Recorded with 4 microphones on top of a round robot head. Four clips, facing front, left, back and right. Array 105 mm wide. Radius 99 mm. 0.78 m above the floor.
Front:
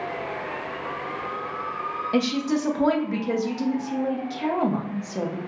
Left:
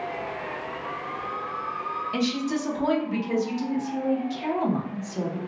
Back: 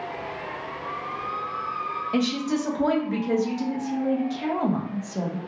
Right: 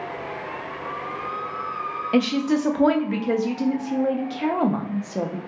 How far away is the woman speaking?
About 0.7 m.